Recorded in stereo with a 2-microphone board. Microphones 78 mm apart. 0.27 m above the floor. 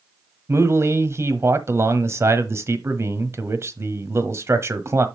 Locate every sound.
0.5 s a man speaking: 35° right (ahead or behind), 1.3 m